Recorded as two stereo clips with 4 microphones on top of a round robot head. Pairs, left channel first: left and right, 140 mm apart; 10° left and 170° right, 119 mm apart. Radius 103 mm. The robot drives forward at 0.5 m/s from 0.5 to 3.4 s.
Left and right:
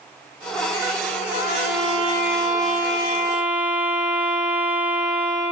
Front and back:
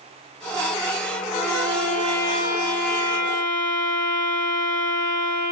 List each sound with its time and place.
1.3 s a violin: 60° right, 4 m; by 5.5 s 75° right, 3.5 m